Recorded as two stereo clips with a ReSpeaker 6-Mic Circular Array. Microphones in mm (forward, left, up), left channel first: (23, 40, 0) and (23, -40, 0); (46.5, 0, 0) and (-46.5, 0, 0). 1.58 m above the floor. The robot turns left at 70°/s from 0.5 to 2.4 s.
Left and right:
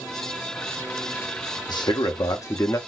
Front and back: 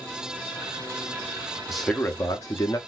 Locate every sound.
1.7 s a man speaking: 95° left, 0.8 m; by 2.8 s 45° left, 0.8 m